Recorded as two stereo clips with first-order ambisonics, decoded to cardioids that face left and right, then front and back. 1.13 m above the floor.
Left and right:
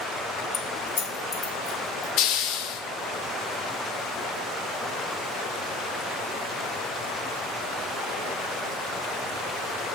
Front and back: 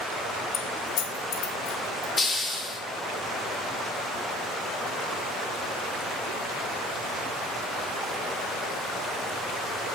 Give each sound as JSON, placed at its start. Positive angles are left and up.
{"t": 0.5, "sound": "keys jangling", "azimuth_deg": 40, "distance_m": 0.5}
{"t": 2.2, "sound": "a hiss", "azimuth_deg": 75, "distance_m": 0.7}